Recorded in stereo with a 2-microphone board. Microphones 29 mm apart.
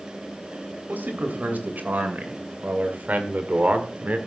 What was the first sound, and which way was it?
A man speaking, 80° right.